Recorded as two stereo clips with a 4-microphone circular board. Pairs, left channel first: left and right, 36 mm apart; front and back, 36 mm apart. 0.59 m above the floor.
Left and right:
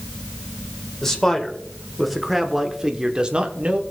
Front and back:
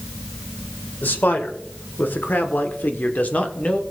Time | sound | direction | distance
1.0 | a man speaking | 15° left | 1.7 m